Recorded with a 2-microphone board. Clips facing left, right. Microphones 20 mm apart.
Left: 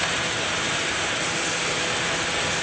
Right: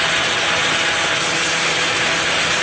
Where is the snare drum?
No snare drum in this recording.